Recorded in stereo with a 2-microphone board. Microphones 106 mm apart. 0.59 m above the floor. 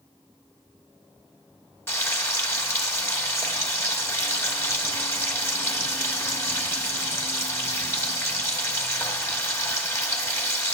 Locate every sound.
1.9 s frying: 25° left (ahead or behind), 0.7 m